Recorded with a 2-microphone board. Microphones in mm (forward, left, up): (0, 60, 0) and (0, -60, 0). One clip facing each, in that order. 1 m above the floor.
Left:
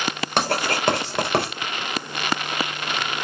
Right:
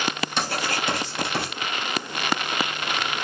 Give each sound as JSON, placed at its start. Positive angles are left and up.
{"t": 0.4, "sound": "writing", "side_deg": 60, "distance_m": 4.0}